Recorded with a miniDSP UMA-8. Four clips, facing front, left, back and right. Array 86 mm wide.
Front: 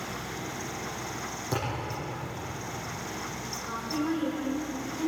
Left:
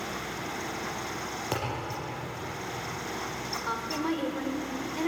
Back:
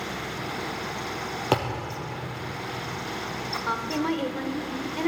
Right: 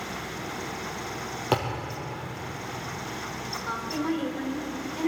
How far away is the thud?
About 4.5 m.